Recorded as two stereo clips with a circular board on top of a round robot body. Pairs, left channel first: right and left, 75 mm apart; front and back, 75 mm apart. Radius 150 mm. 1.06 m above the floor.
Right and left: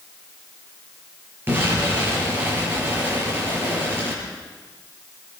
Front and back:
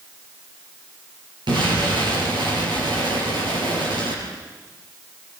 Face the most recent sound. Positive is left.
turn(degrees=155)